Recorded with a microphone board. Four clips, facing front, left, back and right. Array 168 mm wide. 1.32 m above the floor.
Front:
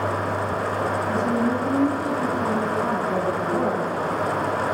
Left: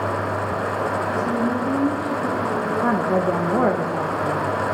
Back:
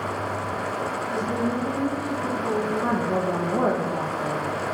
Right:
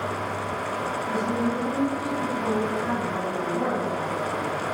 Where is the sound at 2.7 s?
100° left, 2.0 m.